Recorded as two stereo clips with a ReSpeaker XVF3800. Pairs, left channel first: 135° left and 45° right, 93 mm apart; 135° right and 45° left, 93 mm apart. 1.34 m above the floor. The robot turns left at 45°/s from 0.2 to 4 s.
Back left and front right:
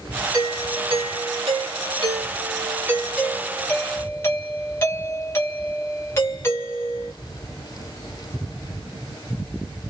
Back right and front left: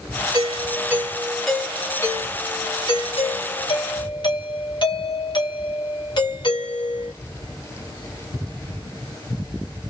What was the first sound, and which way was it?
A doorbell, 5° left.